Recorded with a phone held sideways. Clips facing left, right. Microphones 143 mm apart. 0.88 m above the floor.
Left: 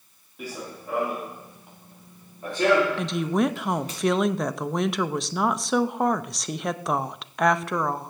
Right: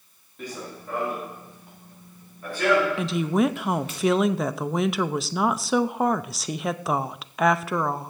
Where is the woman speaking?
Centre (ahead or behind), 0.5 m.